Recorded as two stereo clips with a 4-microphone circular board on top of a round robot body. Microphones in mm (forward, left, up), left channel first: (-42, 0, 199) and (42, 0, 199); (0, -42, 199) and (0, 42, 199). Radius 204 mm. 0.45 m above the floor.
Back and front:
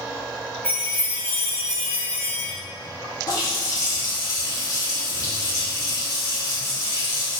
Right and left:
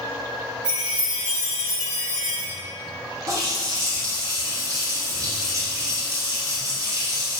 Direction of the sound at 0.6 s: 110° left.